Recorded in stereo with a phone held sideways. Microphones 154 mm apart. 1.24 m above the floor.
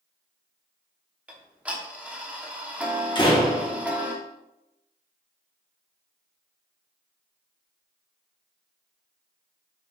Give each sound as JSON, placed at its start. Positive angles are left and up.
{"t": 1.3, "sound": "ticking", "side_deg": -10, "distance_m": 0.6}
{"t": 3.1, "sound": "a door slam", "side_deg": 30, "distance_m": 0.8}